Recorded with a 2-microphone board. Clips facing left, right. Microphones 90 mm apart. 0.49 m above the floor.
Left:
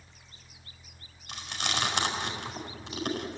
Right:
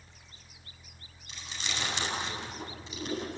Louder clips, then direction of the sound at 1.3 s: Left 6 dB; 60° left (ahead or behind).